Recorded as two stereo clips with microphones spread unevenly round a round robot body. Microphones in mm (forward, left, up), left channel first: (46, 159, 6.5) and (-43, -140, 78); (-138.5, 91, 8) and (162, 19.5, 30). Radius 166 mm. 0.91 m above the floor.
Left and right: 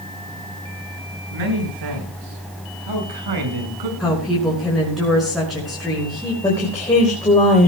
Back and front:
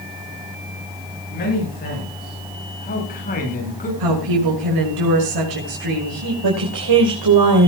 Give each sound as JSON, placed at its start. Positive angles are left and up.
{"t": 1.3, "sound": "a man speaking", "azimuth_deg": -130, "distance_m": 8.5}
{"t": 4.0, "sound": "a woman speaking", "azimuth_deg": -15, "distance_m": 5.5}
{"t": 6.4, "sound": "a woman speaking", "azimuth_deg": -5, "distance_m": 3.5}